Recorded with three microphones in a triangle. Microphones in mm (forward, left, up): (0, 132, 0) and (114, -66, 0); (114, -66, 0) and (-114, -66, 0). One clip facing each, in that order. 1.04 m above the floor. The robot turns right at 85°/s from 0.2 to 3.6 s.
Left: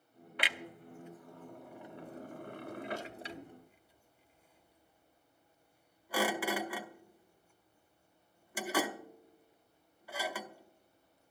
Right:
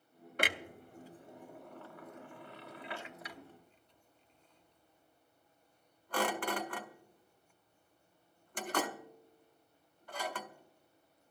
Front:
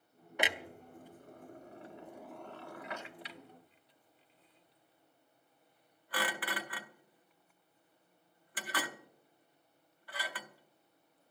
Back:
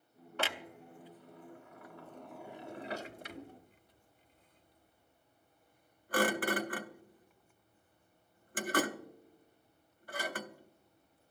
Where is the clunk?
75° right, 0.7 m; by 11.3 s 160° right, 0.7 m.